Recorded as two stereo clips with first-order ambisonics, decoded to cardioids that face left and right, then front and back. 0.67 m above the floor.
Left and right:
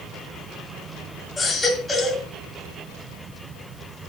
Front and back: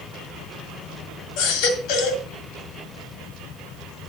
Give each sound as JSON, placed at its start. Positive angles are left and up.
{"t": 1.4, "sound": "a baby crying", "azimuth_deg": 5, "distance_m": 2.0}